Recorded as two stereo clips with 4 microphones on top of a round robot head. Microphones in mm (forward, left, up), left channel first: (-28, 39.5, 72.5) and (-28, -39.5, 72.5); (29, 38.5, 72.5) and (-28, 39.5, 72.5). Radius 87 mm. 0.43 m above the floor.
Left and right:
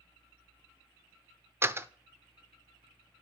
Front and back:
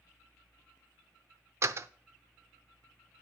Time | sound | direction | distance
1.6 | a door slam | 150° right | 0.7 m